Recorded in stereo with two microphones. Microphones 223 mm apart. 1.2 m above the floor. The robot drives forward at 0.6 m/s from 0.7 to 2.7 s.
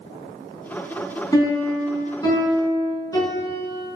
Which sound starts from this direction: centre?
A piano, at 1.3 s.